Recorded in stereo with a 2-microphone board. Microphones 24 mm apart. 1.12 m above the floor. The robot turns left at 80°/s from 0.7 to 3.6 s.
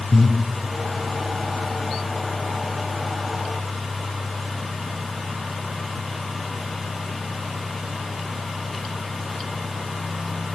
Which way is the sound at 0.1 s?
70° left (ahead or behind).